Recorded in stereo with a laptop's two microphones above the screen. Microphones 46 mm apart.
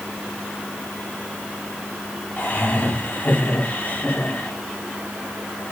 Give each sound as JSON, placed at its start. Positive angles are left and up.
{"t": 2.4, "sound": "laughter", "side_deg": 40, "distance_m": 8.0}